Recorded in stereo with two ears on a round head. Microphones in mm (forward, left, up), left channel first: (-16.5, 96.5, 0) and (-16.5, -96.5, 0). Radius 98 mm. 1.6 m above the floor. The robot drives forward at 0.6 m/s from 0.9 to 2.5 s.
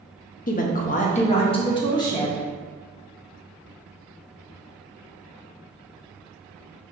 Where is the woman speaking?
40° left (ahead or behind), 0.6 m; by 2.4 s 15° left (ahead or behind), 1.3 m.